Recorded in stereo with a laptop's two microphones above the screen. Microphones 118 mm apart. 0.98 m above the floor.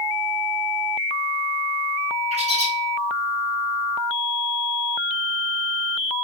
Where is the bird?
65° right (ahead or behind), 1.2 m.